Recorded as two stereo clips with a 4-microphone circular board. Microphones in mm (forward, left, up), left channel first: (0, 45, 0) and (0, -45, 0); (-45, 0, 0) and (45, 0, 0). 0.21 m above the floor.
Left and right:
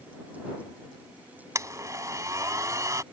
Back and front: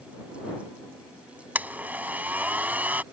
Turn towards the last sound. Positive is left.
turn(degrees=-65)